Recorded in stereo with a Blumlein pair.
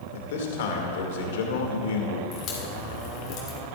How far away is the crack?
About 3.5 m.